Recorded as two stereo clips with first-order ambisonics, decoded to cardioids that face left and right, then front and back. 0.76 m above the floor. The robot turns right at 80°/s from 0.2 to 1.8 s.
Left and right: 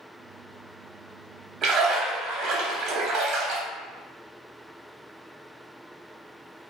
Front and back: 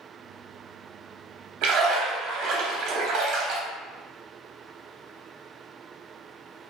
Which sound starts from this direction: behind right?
A splash, at 1.6 s.